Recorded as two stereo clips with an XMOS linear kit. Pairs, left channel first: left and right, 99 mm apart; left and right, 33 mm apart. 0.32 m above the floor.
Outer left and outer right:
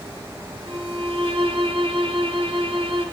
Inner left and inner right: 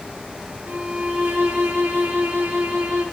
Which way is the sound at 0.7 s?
65° right (ahead or behind).